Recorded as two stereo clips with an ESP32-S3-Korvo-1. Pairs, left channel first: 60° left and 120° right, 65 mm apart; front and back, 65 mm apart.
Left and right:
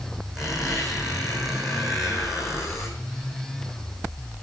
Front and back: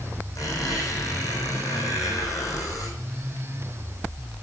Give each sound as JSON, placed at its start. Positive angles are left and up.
{"t": 0.3, "sound": "a squeak", "azimuth_deg": -35, "distance_m": 4.0}